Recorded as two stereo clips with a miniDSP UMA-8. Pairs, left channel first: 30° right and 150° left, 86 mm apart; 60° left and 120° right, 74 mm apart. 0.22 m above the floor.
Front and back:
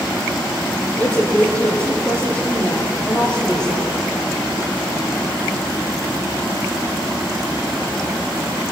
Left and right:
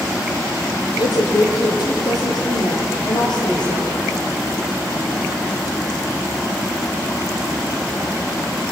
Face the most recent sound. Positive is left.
turn(degrees=50)